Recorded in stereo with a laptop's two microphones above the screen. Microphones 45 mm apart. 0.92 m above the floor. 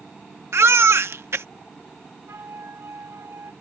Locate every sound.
0.5 s a baby crying: 75° right (ahead or behind)
2.3 s a flute: 85° right